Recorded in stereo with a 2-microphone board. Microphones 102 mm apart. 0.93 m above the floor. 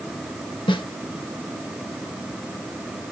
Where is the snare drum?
50° left (ahead or behind), 1.0 m.